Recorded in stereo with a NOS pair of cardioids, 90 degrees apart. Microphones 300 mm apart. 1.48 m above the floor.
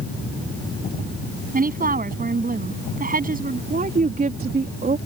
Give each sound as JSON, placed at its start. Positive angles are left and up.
{"t": 1.5, "sound": "a woman speaking", "azimuth_deg": -30}
{"t": 3.7, "sound": "a woman speaking", "azimuth_deg": -30}